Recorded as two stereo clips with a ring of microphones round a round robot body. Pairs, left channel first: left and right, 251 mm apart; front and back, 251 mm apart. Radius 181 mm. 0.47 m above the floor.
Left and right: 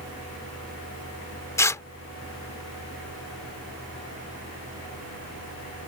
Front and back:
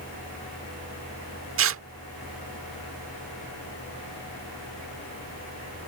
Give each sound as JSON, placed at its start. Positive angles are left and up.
{"t": 1.6, "sound": "tearing paper", "azimuth_deg": 170}